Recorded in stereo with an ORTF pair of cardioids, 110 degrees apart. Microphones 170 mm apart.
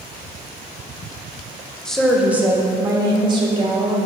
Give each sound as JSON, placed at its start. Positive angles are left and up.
{"t": 1.9, "sound": "a woman speaking", "azimuth_deg": 5, "distance_m": 1.1}